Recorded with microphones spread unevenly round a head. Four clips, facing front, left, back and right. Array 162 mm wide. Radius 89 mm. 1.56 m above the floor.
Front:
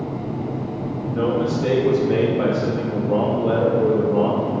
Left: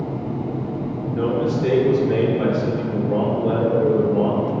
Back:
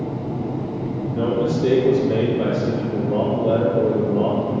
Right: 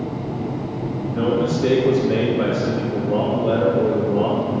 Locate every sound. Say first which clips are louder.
1.1 s a man speaking: right 1 dB, even; 30° right, 3 m